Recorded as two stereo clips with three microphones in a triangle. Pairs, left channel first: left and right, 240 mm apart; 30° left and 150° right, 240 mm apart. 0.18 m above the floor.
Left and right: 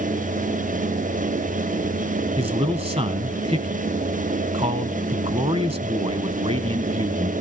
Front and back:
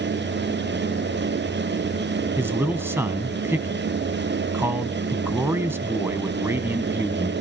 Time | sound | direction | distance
2.4 | a man speaking | 85° right | 1.2 m